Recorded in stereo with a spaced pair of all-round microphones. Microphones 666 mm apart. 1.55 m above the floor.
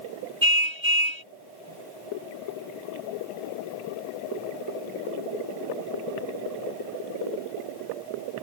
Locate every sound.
0.4 s a car horn: 45° right (ahead or behind)